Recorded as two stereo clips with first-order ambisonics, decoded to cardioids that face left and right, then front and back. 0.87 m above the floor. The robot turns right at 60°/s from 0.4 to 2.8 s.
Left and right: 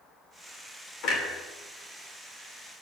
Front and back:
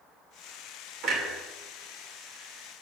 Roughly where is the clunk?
Behind left.